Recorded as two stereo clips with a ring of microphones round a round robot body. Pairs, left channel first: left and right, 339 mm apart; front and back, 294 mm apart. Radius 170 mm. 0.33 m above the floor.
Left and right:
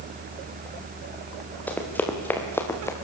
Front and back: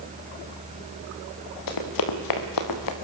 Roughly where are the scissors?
I don't hear scissors.